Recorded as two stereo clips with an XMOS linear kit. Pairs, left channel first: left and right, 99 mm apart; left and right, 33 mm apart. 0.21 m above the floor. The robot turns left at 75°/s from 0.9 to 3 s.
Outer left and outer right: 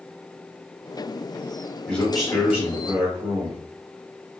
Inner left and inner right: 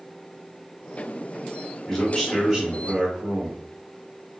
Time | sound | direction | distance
1.9 | a man speaking | 25° left | 1.5 m